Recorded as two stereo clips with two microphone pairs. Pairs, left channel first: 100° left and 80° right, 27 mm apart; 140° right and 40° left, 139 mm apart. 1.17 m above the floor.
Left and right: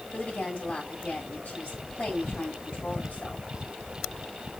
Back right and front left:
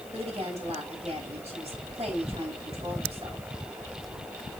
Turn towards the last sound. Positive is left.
turn(degrees=80)